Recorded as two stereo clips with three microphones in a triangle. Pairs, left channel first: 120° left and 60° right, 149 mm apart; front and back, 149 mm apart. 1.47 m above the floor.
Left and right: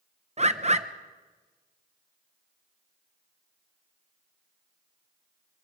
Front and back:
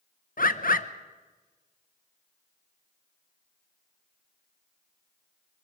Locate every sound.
0.4 s a bird: 20° right, 1.0 m